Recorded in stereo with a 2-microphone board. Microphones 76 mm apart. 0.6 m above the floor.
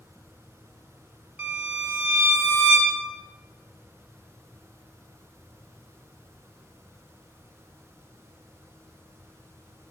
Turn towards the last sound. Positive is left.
turn(degrees=-15)  # may be behind; listen again after turning